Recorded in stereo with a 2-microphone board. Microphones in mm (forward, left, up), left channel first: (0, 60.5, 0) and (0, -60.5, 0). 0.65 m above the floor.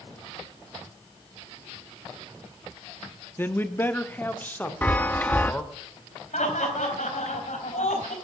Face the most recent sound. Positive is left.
turn(degrees=80)